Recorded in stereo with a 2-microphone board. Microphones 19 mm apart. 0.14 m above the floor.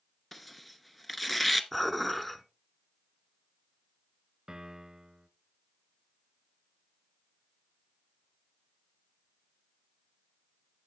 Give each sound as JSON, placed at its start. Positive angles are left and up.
{"t": 0.3, "sound": "tearing paper", "side_deg": 10, "distance_m": 0.8}
{"t": 1.7, "sound": "dishes clattering", "side_deg": 5, "distance_m": 0.9}
{"t": 4.5, "sound": "a piano", "side_deg": -40, "distance_m": 0.7}